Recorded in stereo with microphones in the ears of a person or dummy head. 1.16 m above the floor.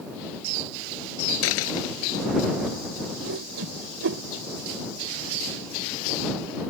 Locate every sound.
1.4 s a dropped coin: 75° left (ahead or behind)
3.2 s a whoosh: 70° right (ahead or behind)